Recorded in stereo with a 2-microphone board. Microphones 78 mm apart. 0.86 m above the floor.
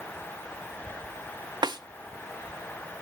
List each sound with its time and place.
1.6 s a snare drum: 75° right (ahead or behind), 0.7 m